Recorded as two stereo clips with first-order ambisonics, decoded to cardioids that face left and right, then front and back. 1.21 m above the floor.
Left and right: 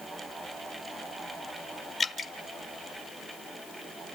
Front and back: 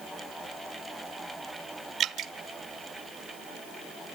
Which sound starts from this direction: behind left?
Dripping, at 2.0 s.